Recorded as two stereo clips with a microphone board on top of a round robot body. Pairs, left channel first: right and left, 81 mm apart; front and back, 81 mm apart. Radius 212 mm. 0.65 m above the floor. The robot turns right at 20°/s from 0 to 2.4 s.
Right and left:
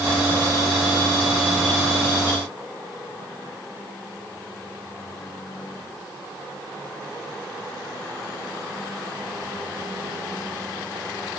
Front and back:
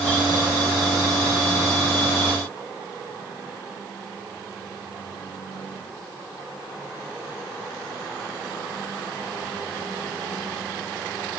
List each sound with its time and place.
Only background noise.